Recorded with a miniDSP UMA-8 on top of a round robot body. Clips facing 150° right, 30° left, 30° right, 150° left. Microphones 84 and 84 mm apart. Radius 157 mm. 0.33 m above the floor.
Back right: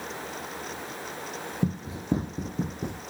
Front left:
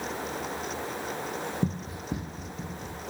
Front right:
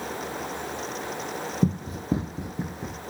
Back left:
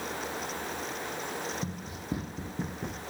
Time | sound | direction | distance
1.6 | running footsteps | 70° right | 1.5 m